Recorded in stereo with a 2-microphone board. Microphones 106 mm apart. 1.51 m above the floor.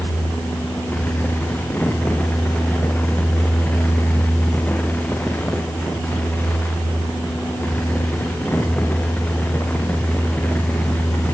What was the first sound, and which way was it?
Only background noise.